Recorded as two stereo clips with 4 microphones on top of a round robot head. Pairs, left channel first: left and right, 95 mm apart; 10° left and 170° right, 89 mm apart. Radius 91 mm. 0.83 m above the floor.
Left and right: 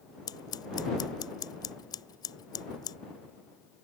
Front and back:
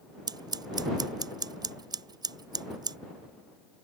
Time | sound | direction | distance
0.3 | scissors | 145° left | ?